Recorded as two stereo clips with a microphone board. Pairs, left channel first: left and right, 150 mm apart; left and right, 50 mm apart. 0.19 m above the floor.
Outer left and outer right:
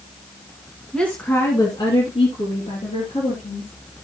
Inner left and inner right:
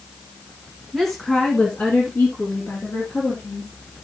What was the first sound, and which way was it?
A woman speaking, 5° left (ahead or behind).